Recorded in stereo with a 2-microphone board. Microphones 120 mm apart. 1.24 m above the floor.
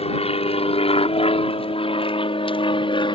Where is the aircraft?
60° left (ahead or behind); by 3.2 s 45° left (ahead or behind).